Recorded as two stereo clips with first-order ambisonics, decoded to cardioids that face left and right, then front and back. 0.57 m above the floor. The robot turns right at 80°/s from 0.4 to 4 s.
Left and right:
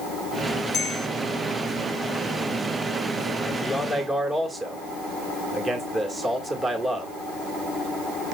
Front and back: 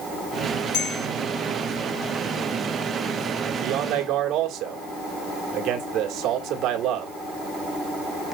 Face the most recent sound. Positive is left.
turn(degrees=-160)